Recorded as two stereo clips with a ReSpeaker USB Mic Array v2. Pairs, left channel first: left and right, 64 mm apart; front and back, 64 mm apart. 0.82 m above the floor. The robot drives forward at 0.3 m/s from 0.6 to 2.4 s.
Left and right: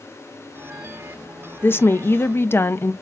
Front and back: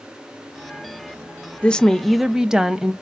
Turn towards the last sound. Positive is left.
turn(degrees=105)